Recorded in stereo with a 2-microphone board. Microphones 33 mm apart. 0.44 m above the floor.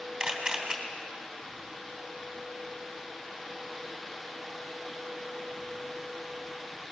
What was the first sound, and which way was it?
A camera shutter, 20° right (ahead or behind).